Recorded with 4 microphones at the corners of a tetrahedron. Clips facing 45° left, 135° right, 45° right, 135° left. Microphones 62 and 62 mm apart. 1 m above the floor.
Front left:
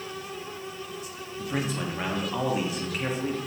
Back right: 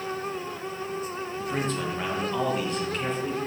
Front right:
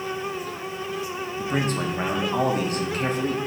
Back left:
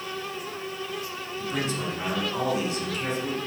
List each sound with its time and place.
1.4 s a man speaking: 35° right, 0.7 m